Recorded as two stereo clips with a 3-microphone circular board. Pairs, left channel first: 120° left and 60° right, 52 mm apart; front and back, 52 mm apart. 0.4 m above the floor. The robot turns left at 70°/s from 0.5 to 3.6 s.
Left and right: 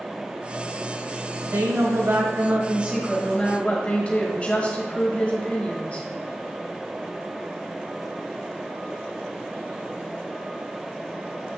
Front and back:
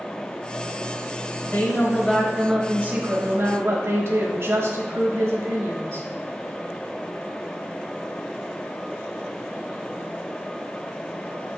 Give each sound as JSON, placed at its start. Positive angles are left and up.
{"t": 1.4, "sound": "a woman speaking", "azimuth_deg": -30, "distance_m": 1.6}